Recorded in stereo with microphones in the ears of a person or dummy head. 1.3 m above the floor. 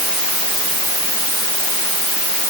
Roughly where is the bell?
No bell in this recording.